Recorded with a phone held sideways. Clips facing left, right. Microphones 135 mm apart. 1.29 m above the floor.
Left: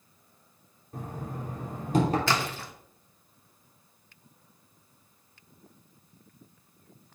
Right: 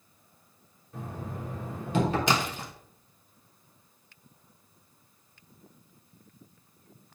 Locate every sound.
0.9 s knocking: 40° left (ahead or behind), 3 m
2.3 s a splash: 15° right (ahead or behind), 1.1 m